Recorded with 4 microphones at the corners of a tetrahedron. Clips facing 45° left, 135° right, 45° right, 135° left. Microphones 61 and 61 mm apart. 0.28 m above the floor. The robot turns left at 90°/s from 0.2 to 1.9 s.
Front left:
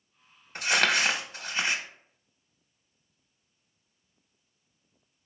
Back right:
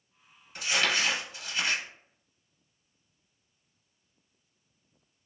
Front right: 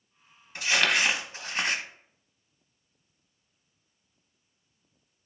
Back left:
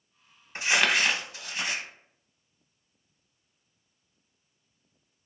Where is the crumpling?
80° left, 0.6 m; by 1.8 s 35° right, 0.6 m.